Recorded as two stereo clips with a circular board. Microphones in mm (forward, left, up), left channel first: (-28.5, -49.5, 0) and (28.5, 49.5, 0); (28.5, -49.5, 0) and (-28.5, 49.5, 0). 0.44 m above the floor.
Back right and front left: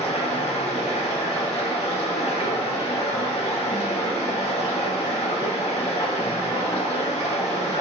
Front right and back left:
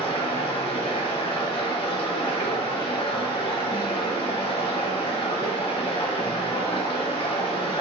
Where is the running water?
100° right, 0.7 m.